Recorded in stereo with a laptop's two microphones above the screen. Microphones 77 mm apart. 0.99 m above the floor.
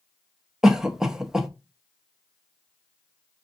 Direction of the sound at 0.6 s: 5° right (ahead or behind).